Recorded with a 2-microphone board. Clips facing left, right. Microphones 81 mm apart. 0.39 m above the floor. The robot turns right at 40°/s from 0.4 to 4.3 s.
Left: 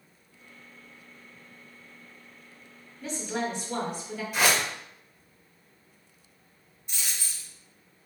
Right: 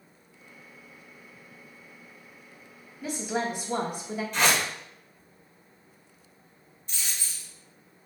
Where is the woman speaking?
5° right (ahead or behind), 0.8 m; by 4.2 s 15° right (ahead or behind), 0.8 m.